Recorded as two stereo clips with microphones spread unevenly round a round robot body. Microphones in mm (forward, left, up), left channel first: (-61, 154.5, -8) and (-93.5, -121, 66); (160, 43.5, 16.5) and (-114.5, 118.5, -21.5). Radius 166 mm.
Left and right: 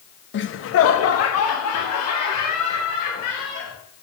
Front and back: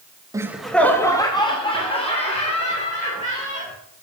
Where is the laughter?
95° left, 0.8 m; by 3.7 s 50° left, 3.5 m.